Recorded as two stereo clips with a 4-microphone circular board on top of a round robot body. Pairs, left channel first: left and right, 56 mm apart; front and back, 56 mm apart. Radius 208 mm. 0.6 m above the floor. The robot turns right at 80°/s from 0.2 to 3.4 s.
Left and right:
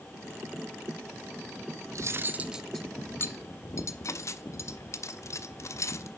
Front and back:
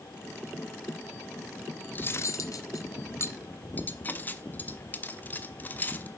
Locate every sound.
1.9 s cutlery clinking: 60° right, 1.2 m; by 6.1 s 55° left, 1.2 m